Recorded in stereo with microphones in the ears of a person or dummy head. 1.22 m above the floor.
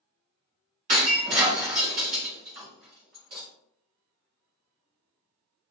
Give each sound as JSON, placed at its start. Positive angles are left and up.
{"t": 0.9, "sound": "breaking glass", "side_deg": -40, "distance_m": 1.2}